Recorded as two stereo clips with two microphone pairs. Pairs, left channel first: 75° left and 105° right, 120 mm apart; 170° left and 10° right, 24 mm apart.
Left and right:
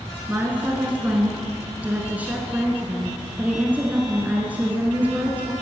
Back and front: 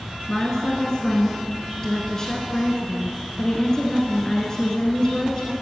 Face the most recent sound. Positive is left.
turn(degrees=-165)